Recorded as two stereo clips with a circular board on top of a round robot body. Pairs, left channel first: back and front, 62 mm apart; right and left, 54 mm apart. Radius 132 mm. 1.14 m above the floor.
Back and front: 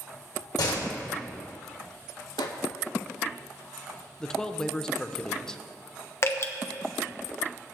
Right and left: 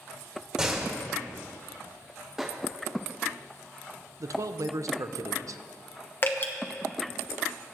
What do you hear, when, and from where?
0.6 s a door slam: 165° left, 1.9 m
2.4 s a microwave: 170° left, 0.7 m
4.2 s a man speaking: 100° left, 0.6 m
6.2 s dripping: 135° right, 1.1 m